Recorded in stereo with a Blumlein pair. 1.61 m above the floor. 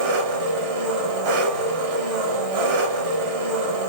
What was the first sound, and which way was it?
An engine running, 40° right.